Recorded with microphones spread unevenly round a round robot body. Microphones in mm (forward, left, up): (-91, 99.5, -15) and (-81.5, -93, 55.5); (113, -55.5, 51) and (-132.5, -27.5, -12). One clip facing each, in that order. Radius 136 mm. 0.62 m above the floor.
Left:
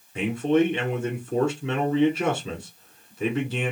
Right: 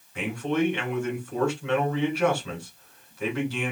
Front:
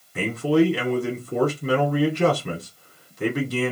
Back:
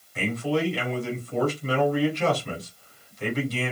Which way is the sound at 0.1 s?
40° left.